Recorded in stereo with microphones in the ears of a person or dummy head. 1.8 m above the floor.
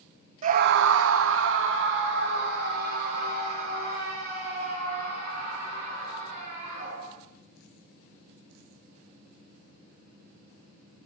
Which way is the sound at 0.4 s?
40° right (ahead or behind).